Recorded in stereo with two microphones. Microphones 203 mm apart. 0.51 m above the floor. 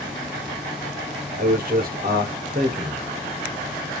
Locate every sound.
1.4 s a man speaking: 45° right (ahead or behind), 1.0 m